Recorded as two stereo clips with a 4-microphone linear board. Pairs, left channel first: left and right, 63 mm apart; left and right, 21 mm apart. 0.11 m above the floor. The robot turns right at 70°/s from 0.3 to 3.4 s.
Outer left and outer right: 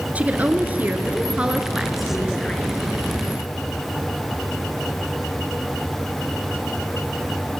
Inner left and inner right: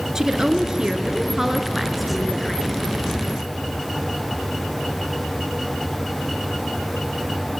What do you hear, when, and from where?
0.1 s a woman speaking: 25° right (ahead or behind), 1.3 m; by 2.7 s 20° left (ahead or behind), 1.3 m